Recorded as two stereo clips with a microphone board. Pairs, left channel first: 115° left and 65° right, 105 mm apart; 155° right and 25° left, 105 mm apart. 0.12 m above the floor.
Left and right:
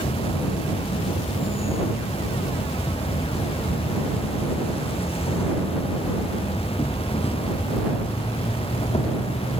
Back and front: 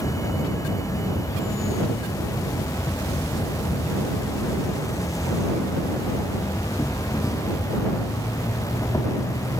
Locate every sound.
0.0 s an insect: 140° left